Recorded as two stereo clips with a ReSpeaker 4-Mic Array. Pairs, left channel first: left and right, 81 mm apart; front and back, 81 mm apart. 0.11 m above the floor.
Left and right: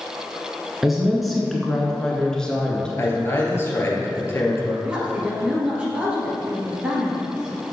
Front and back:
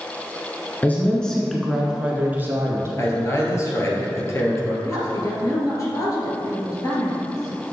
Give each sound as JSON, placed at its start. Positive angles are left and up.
{"t": 0.8, "sound": "a woman speaking", "azimuth_deg": -10, "distance_m": 1.1}
{"t": 3.0, "sound": "a man speaking", "azimuth_deg": 40, "distance_m": 1.8}
{"t": 4.8, "sound": "a woman speaking", "azimuth_deg": -20, "distance_m": 2.0}